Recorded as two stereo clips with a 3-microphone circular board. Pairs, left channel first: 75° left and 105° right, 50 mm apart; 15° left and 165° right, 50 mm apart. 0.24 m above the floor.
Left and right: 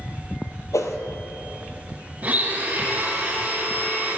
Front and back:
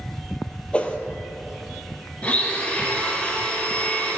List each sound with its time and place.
0.7 s a whoosh: 80° left, 1.0 m
2.2 s a blender: 45° right, 2.5 m